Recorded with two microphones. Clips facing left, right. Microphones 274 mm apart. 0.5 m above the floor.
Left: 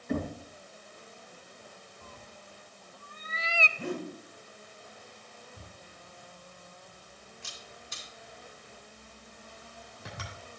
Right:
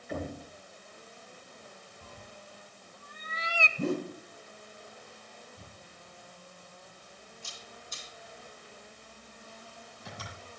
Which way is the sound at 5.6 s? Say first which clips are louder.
Left 1 dB; 80° left.